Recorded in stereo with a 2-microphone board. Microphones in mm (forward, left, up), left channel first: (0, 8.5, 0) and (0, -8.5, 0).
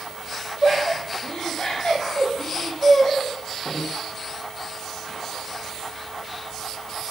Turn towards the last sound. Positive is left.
turn(degrees=50)  # may be behind; listen again after turning